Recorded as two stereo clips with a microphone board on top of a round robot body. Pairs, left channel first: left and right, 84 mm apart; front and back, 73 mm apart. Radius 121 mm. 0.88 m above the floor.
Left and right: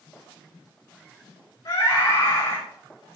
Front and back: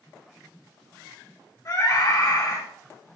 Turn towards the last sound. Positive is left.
turn(degrees=45)